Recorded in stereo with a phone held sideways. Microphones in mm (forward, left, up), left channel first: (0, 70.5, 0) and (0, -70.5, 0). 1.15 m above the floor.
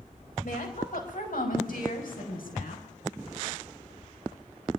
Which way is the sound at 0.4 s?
70° left (ahead or behind).